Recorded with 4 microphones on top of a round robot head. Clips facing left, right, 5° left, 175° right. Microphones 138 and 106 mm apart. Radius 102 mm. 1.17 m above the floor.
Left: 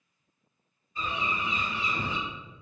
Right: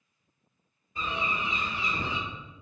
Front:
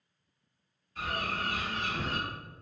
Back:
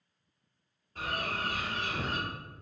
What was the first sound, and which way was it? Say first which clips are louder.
A bird: even, front 1 dB; 125° right.